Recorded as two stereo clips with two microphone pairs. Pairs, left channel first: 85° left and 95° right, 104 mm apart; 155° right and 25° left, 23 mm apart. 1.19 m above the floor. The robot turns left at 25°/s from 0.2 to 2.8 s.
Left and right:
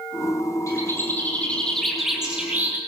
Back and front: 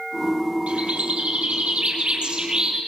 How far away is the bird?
About 7.5 m.